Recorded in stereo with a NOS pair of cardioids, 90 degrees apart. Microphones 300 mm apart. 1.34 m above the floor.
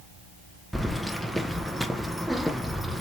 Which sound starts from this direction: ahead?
Keys jangling, at 0.7 s.